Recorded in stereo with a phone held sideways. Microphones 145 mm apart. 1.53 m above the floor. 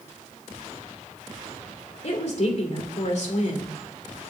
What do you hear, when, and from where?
2.0 s a woman speaking: 55° left (ahead or behind), 2.5 m